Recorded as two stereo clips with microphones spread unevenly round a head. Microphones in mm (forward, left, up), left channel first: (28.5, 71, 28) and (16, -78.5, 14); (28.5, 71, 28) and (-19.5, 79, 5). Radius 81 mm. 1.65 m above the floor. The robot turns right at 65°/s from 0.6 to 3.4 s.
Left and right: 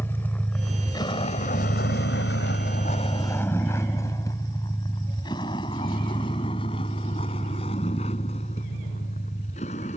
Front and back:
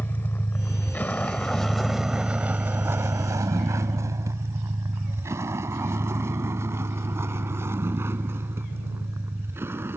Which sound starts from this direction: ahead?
A vehicle, at 0.0 s.